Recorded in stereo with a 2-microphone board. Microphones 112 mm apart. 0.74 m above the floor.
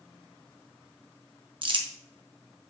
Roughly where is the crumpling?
Right.